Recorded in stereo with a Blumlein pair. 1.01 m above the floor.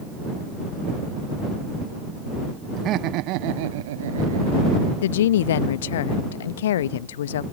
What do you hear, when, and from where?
2.8 s laughter: 30° right; by 4.9 s 80° right
5.0 s a woman speaking: 60° left